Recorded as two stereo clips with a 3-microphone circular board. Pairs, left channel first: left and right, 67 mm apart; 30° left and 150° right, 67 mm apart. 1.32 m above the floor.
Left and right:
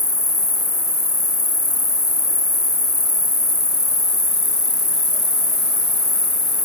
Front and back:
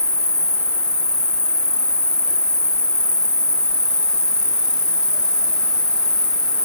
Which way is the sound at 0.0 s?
105° left.